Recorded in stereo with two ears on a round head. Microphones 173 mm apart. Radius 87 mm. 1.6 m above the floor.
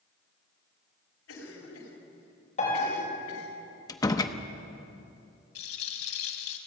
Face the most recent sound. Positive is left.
turn(degrees=80)